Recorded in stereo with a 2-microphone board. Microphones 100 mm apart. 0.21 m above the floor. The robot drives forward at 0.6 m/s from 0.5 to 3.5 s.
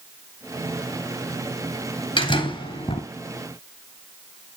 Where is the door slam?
55° left (ahead or behind), 2 m; by 3.0 s 65° left (ahead or behind), 2 m.